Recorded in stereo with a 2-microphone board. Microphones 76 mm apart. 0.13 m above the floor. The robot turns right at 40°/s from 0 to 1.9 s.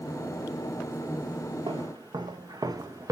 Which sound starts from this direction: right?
Footsteps, at 1.7 s.